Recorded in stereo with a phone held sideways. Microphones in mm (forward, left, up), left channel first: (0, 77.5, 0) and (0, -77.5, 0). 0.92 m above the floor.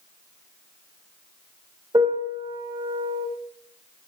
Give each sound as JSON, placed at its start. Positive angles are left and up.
{"t": 1.9, "sound": "a piano", "side_deg": -30, "distance_m": 2.5}